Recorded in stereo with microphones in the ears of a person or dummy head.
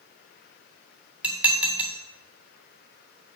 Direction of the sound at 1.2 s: 5° right (ahead or behind).